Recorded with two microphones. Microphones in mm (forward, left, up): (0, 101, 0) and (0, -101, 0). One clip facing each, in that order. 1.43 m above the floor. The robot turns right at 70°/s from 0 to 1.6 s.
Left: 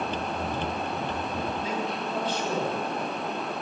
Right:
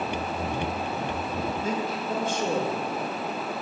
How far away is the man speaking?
About 3 m.